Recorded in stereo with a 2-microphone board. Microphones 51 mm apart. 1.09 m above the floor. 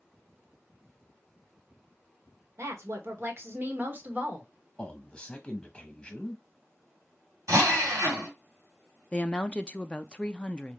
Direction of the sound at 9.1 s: 20° left (ahead or behind).